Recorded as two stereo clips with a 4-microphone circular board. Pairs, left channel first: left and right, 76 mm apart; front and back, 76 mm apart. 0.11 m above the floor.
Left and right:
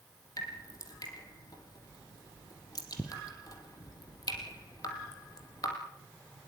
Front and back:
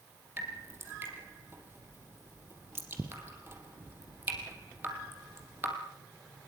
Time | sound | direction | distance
0.4 | dripping | 120° left | 4 m